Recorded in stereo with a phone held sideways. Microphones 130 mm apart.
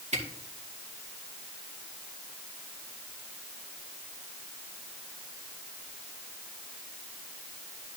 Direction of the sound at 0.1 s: 60° right (ahead or behind).